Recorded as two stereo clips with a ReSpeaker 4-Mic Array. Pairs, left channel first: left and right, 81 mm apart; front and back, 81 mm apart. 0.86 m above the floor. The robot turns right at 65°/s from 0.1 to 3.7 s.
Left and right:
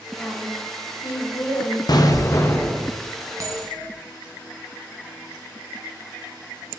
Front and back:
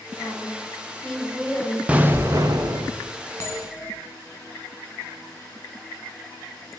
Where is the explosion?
105° left, 0.6 m; by 2.9 s 175° left, 0.6 m.